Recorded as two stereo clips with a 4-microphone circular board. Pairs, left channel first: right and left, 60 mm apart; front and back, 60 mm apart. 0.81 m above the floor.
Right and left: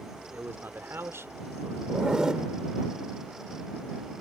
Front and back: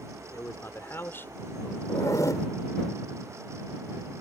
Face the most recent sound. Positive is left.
turn(degrees=15)